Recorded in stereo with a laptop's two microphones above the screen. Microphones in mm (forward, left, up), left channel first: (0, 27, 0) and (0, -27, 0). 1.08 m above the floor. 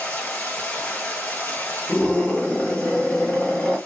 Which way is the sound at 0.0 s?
45° left (ahead or behind).